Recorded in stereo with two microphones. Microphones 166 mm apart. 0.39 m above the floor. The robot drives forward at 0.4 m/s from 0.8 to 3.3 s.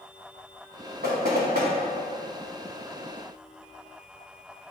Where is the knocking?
75° right (ahead or behind), 1.9 m.